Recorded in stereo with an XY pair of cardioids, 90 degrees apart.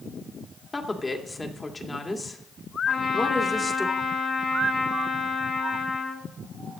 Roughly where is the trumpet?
Ahead left.